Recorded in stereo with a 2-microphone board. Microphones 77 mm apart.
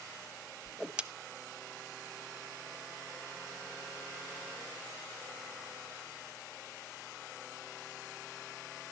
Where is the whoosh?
15° right (ahead or behind), 0.6 m.